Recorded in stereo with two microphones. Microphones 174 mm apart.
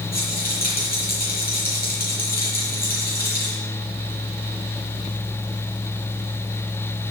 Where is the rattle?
55° left (ahead or behind), 8 m.